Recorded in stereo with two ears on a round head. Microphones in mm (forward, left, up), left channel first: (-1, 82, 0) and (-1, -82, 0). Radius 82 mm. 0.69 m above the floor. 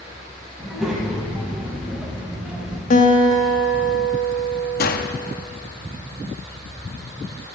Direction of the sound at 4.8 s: 50° left (ahead or behind).